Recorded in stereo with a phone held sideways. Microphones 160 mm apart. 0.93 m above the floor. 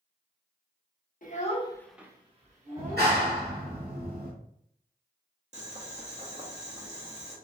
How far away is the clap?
About 1.8 m.